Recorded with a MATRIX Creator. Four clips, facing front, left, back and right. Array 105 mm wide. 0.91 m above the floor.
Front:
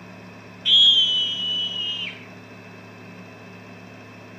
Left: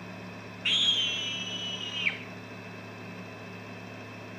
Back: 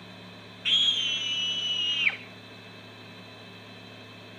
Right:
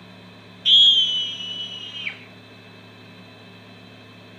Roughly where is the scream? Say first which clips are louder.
Right 10 dB, front 8 dB; behind left.